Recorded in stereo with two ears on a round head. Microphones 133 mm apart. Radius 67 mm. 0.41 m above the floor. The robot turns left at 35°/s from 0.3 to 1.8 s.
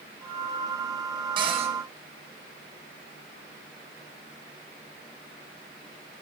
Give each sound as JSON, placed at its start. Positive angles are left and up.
{"t": 1.4, "sound": "a cupboard door", "side_deg": -35, "distance_m": 3.5}